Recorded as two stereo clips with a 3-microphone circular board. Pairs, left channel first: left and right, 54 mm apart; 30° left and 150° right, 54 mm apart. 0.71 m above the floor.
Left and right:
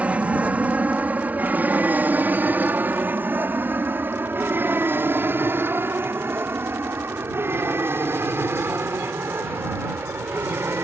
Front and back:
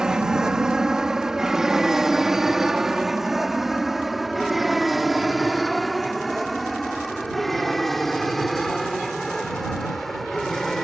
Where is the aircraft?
90° right; by 10.8 s 55° right.